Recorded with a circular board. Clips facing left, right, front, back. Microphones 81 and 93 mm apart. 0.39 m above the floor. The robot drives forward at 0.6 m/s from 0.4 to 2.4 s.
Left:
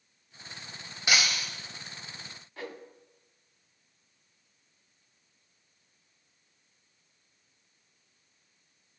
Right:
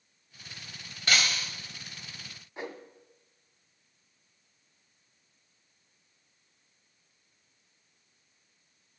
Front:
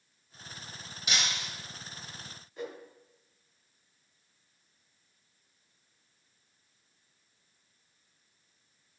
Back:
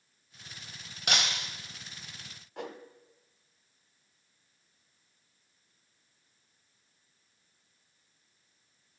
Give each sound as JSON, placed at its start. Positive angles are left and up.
{"t": 1.1, "sound": "breaking glass", "azimuth_deg": 170, "distance_m": 1.1}
{"t": 2.6, "sound": "a whoosh", "azimuth_deg": -160, "distance_m": 0.7}